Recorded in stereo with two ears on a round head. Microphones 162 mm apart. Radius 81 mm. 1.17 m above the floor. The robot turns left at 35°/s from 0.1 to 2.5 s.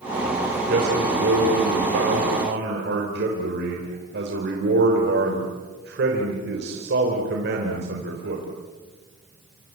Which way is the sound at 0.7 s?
50° right.